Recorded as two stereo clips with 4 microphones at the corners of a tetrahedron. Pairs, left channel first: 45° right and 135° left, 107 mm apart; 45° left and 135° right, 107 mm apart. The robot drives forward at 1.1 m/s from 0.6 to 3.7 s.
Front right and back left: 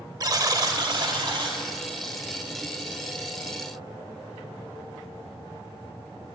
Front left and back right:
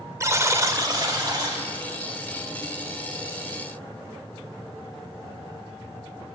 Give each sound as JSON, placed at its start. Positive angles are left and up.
{"t": 0.2, "sound": "a buzzer", "azimuth_deg": 170, "distance_m": 0.5}